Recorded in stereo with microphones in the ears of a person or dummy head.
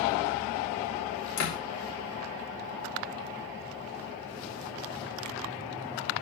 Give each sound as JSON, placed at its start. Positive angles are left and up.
{"t": 1.4, "sound": "a door slam", "side_deg": 70, "distance_m": 4.5}